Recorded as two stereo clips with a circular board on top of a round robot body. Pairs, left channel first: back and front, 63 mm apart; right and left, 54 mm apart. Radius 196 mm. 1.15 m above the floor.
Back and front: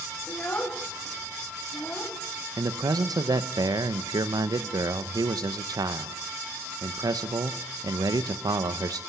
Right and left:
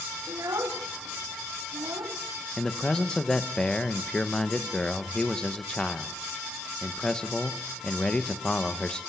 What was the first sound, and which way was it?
A child speaking, 115° left.